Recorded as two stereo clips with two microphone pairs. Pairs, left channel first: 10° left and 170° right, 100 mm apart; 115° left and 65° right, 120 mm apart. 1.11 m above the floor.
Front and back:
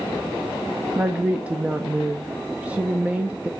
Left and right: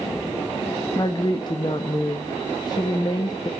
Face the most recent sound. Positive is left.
turn(degrees=125)